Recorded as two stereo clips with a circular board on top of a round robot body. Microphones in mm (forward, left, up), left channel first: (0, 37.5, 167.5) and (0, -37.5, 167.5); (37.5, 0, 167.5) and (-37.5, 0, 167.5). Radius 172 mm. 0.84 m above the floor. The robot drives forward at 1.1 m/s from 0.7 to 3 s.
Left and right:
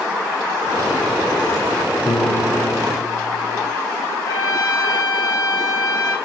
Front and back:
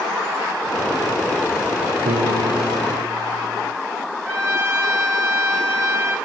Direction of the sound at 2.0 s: 175° left.